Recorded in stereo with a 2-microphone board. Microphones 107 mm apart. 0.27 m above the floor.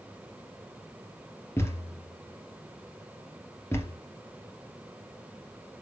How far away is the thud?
About 2.5 m.